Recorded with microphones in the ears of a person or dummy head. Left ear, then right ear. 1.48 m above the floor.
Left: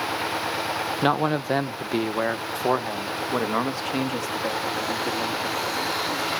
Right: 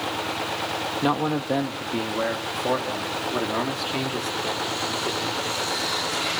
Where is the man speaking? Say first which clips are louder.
Left 2 dB; 70° left (ahead or behind), 0.8 m; by 6.4 s 30° left (ahead or behind), 3.5 m.